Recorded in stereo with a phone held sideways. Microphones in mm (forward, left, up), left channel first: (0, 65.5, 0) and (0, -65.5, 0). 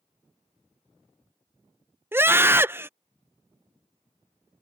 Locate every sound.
2.1 s a scream: 15° right (ahead or behind)